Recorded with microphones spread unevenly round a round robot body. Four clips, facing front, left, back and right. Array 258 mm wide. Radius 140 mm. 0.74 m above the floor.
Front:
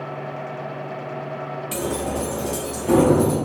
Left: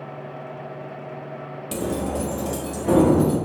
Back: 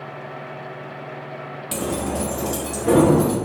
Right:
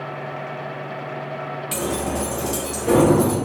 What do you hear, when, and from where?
1.7 s keys jangling: 105° left, 0.6 m; by 3.4 s straight behind, 1.4 m